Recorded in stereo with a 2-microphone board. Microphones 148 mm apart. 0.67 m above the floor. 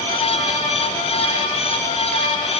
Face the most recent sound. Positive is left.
No sound to turn to.